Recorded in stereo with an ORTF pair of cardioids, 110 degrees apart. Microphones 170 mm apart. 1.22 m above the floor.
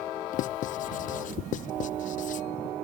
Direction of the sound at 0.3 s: 50° left.